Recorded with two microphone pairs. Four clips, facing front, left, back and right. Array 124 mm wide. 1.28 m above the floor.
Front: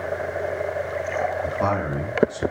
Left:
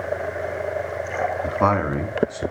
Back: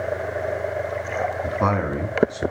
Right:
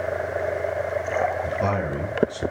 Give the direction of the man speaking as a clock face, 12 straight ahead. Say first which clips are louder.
Left 4 dB, back 1 dB; 9 o'clock.